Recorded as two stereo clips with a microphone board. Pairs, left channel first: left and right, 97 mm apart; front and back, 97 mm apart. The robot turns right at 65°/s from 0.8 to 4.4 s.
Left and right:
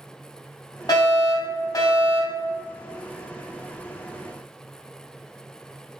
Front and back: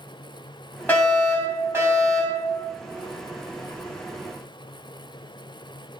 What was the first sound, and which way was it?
A fire alarm, 65° left.